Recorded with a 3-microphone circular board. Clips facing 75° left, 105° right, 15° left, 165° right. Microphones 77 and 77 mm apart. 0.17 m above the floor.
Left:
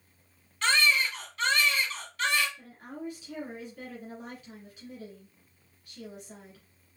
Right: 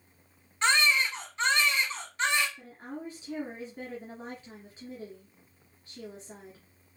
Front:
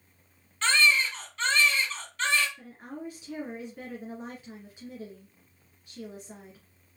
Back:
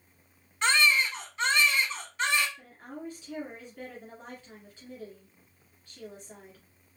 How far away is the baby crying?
About 1.2 m.